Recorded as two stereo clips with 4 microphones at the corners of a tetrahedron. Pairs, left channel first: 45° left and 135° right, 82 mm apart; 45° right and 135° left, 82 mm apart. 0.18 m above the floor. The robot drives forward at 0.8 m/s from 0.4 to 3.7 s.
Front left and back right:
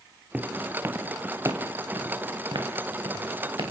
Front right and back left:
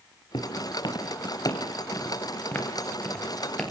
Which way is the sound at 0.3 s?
60° right.